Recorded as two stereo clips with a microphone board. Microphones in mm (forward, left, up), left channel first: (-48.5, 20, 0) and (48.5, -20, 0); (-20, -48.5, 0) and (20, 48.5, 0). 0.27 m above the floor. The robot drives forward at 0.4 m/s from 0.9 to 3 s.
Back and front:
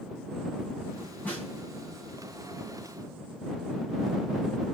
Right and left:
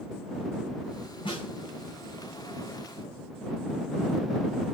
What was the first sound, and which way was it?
A snare drum, 130° right.